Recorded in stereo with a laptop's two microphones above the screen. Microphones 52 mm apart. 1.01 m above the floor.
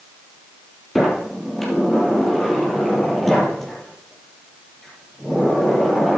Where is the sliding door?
5° left (ahead or behind), 5 m.